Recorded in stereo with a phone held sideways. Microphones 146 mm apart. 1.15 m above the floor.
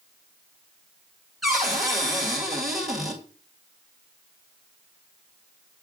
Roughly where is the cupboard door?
Centre.